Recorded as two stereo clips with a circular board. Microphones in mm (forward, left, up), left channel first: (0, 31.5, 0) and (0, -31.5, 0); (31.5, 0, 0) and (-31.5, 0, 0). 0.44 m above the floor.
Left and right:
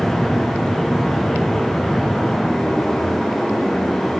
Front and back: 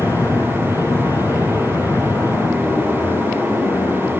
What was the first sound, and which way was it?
An aircraft, straight ahead.